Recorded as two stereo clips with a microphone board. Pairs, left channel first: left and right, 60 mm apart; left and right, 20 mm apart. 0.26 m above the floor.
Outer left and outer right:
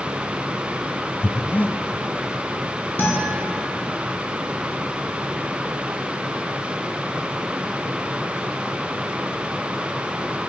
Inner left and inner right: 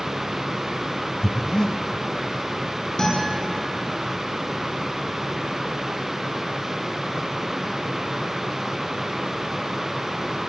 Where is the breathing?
35° left (ahead or behind), 0.9 m.